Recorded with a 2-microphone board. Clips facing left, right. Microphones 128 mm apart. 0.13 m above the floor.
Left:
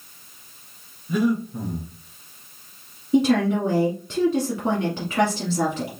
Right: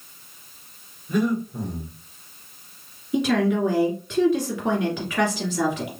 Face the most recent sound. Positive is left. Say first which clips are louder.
# left 2 dB
turn(degrees=35)  # may be behind; listen again after turning